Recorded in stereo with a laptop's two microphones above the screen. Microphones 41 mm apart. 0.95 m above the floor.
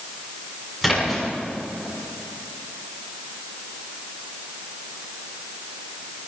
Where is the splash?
10° right (ahead or behind), 6.5 m.